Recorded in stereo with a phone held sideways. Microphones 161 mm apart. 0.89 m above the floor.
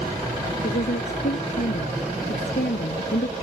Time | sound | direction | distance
0.6 | a woman speaking | 80° left | ?